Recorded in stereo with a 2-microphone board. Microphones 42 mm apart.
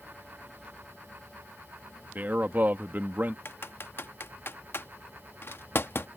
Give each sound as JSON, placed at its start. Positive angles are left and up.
{"t": 2.1, "sound": "a man speaking", "side_deg": -45}
{"t": 3.5, "sound": "typing on a keyboard", "side_deg": 65}